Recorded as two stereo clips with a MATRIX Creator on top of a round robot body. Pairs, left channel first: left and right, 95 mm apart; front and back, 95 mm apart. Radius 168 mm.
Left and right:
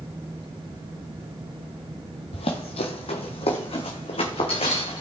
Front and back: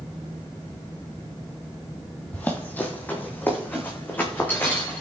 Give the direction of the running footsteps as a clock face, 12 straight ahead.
10 o'clock.